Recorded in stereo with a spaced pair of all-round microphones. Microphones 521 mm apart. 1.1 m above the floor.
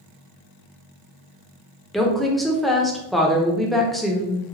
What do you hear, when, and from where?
1.9 s a woman speaking: centre (ahead or behind), 0.8 m